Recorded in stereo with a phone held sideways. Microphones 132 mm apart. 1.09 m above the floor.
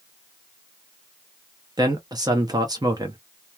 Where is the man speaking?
30° right (ahead or behind), 0.7 m.